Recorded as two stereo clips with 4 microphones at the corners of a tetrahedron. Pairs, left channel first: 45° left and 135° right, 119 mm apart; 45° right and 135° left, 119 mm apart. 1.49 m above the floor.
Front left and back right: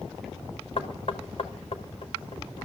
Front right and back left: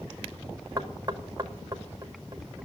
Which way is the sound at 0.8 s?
75° left.